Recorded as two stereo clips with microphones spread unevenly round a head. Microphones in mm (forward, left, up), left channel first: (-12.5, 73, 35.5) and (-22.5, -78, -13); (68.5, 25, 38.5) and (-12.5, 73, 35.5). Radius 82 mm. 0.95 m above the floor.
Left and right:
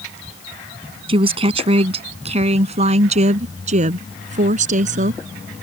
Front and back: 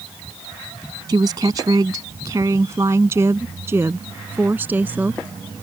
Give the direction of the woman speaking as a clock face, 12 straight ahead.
5 o'clock.